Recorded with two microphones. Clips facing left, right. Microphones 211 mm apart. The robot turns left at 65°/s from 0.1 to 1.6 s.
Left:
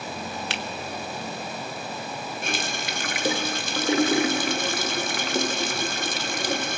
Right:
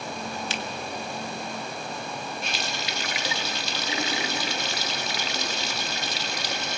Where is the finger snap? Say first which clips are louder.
Even; 65° left (ahead or behind), 1.9 m; by 0.6 s 55° left (ahead or behind), 1.9 m.